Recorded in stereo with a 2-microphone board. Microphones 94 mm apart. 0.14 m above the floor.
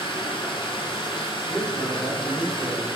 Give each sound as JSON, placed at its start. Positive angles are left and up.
{"t": 0.0, "sound": "running water", "side_deg": 65, "distance_m": 1.0}
{"t": 1.5, "sound": "a man speaking", "side_deg": 5, "distance_m": 1.7}